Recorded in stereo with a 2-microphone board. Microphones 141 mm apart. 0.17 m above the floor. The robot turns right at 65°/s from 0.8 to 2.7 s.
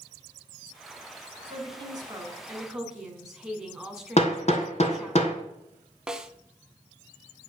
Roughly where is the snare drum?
Centre.